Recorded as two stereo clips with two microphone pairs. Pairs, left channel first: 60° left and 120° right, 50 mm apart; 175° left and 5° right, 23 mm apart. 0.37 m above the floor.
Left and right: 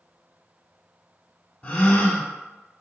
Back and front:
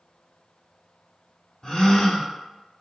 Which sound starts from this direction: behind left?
A gasp, at 1.6 s.